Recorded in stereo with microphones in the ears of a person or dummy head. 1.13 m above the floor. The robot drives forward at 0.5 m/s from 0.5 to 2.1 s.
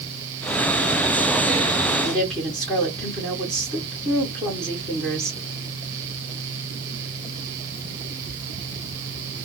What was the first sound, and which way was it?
A woman speaking, 5° left (ahead or behind).